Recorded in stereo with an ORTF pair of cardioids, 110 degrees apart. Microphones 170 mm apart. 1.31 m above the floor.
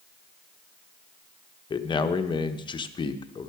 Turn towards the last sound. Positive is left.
turn(degrees=30)